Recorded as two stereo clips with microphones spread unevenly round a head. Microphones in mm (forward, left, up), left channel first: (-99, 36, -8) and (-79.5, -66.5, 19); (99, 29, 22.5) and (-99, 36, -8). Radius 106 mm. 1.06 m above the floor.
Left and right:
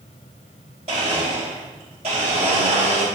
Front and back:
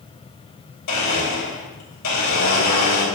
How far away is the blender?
About 2.5 m.